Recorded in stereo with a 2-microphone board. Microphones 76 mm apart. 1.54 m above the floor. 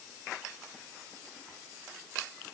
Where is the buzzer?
I don't hear a buzzer.